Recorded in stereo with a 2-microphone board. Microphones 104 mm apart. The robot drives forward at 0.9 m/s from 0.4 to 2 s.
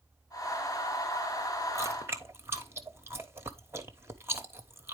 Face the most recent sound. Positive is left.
turn(degrees=-25)  # may be behind; listen again after turning